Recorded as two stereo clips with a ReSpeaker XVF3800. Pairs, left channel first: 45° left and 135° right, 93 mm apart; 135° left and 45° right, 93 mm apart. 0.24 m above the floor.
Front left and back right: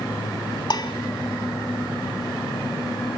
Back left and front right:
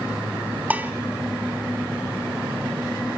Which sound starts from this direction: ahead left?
Dishes clattering, at 0.7 s.